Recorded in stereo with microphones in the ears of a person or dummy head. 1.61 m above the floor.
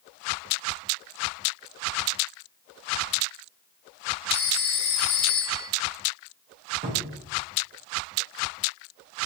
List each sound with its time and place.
4.3 s a phone ringing: 30° left (ahead or behind), 1.1 m
6.8 s a cupboard door: 30° right (ahead or behind), 0.6 m